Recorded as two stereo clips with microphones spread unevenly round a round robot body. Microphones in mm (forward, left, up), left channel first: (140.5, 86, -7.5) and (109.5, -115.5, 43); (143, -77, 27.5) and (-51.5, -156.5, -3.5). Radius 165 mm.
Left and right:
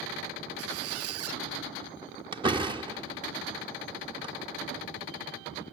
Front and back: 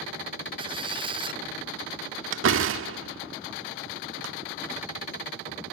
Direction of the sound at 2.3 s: Straight behind.